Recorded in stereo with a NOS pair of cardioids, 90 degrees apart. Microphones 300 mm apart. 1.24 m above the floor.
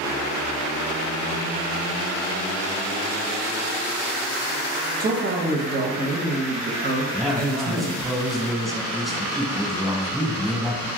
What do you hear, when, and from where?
5.0 s a man speaking: 30° right, 0.9 m
7.1 s a man speaking: straight ahead, 1.3 m